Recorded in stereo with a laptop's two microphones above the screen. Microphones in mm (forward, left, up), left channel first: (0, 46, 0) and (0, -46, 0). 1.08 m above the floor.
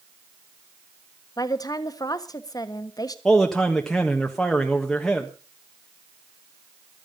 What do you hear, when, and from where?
1.4 s a woman speaking: 45° left (ahead or behind), 1.3 m
3.2 s a man speaking: 5° left (ahead or behind), 1.3 m